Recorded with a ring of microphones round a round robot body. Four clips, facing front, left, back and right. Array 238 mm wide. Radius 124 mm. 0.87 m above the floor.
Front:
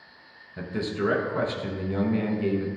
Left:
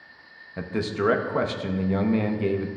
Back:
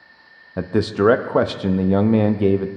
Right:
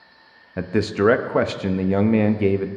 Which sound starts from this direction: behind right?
A man speaking, at 0.6 s.